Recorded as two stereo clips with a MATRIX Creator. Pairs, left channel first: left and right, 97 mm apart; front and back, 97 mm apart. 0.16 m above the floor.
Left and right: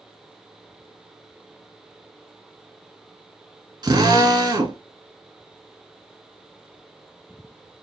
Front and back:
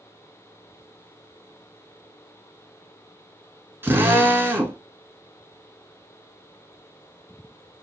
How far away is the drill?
About 1.1 m.